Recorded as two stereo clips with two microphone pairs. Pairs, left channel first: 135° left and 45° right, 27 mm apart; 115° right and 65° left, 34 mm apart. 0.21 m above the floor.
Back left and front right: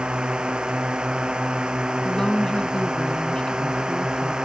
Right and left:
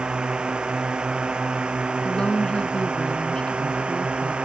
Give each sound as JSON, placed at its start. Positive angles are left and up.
{"t": 0.0, "sound": "a drone", "azimuth_deg": 10}
{"t": 2.0, "sound": "a woman speaking", "azimuth_deg": -170}